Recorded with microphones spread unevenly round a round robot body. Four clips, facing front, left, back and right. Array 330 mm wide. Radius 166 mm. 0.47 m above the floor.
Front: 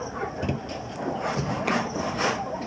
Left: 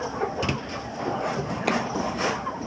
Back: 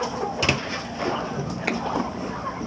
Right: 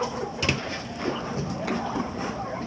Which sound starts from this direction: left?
A finger snap, at 1.7 s.